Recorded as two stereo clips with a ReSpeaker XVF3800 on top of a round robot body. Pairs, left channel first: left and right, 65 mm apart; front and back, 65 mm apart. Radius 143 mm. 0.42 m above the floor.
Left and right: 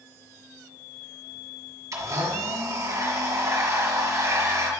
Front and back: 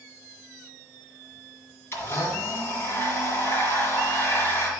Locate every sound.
1.9 s a blender: 50° right, 2.0 m